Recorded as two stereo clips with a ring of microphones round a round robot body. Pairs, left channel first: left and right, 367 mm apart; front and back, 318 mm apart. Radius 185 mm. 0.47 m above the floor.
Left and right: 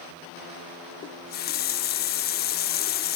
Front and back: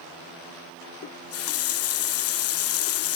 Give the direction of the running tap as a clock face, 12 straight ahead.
11 o'clock.